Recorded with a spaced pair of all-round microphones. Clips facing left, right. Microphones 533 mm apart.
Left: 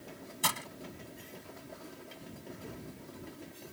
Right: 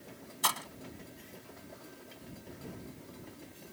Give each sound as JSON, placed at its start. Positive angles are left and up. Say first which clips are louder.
{"t": 0.4, "sound": "breaking glass", "louder": "even", "side_deg": 50}